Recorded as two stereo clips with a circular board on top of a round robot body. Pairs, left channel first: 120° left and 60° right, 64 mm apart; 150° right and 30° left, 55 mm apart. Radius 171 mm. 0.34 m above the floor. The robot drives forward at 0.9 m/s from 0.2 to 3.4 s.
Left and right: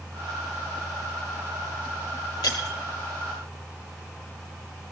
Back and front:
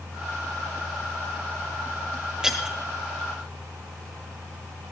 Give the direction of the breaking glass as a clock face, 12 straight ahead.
8 o'clock.